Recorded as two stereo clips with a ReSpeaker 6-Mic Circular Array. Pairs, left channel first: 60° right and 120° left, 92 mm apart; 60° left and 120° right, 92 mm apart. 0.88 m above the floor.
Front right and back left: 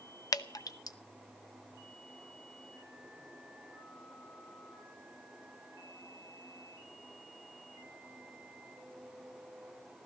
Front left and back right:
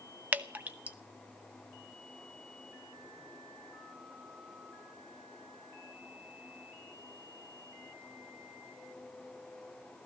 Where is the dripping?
55° right, 0.9 m.